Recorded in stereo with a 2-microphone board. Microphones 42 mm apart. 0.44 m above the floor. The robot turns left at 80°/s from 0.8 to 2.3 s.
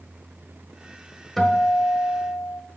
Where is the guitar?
170° left, 1.2 m; by 2.6 s 95° left, 1.2 m.